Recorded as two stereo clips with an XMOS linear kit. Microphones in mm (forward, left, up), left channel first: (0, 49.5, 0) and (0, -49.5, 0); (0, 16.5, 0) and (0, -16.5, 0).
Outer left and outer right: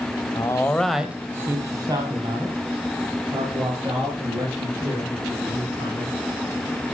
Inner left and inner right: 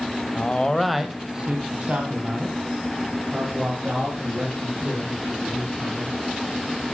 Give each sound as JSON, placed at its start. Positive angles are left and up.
{"t": 0.3, "sound": "a man speaking", "side_deg": 35, "distance_m": 1.1}